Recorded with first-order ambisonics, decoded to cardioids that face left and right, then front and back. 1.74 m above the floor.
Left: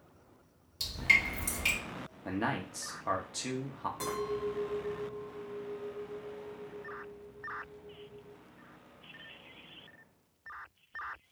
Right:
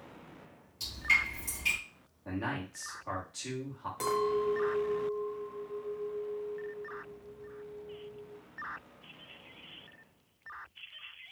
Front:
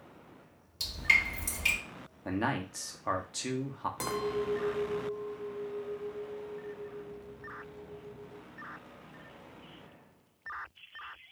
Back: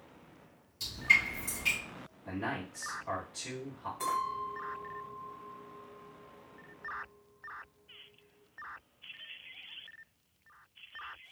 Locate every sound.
0.8 s dripping: 40° left, 2.5 m
2.2 s a man speaking: 30° left, 0.8 m
4.0 s a clink: 15° right, 1.0 m